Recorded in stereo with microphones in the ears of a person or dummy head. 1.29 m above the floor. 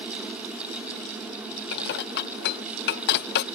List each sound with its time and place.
1.7 s dishes clattering: 60° left (ahead or behind)